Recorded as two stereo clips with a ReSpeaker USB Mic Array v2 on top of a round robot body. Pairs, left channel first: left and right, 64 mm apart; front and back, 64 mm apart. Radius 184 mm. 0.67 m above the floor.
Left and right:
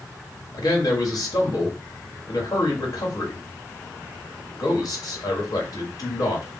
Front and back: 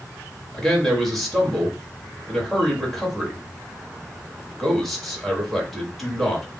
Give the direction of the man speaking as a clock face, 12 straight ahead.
9 o'clock.